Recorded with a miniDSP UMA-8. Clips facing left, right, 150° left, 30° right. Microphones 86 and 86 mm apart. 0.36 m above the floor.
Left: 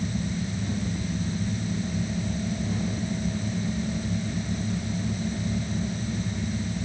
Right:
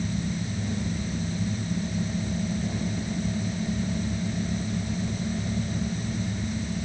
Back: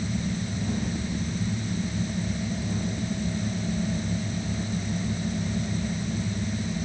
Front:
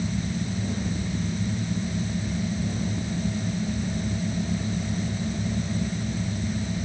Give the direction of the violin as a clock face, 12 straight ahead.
I don't hear a violin.